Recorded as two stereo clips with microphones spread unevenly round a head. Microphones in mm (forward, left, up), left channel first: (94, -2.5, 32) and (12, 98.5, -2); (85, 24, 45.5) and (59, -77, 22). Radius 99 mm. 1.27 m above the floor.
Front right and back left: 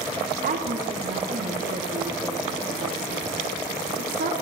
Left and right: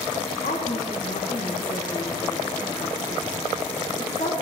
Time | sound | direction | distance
0.4 | a woman speaking | 120° left | 2.5 m